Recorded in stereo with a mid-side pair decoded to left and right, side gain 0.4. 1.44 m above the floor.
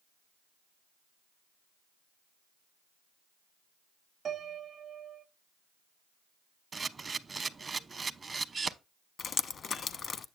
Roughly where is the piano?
Ahead right.